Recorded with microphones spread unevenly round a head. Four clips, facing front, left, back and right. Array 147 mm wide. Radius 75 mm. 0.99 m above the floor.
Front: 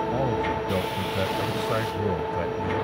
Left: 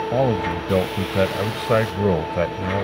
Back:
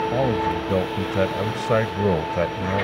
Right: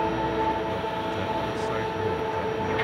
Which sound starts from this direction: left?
A man speaking, at 0.1 s.